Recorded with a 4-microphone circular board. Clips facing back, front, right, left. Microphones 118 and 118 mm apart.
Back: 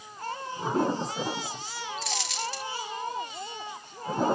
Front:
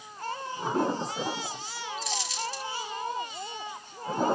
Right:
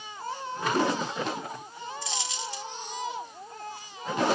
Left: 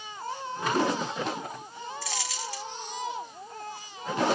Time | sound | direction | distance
2.0 | a dropped coin | 160° right | 1.1 m